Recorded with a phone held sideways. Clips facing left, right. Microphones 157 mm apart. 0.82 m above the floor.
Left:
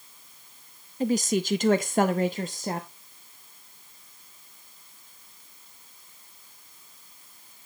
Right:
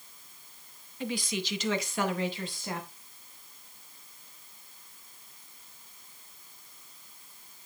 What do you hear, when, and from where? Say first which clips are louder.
1.0 s a woman speaking: left 9 dB; 40° left (ahead or behind), 0.7 m